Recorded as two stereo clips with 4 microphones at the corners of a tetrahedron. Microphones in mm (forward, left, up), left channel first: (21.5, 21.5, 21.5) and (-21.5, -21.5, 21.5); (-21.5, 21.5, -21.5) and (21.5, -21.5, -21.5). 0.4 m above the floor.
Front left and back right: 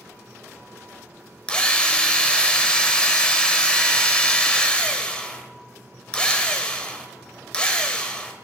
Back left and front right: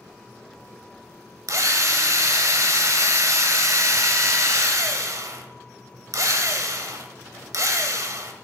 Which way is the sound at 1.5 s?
25° right.